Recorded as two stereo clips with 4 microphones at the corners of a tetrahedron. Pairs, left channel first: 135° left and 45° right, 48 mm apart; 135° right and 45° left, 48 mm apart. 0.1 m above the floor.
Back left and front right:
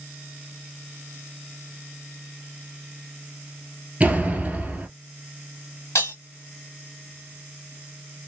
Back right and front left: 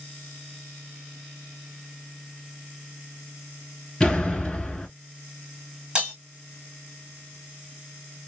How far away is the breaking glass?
About 1.7 m.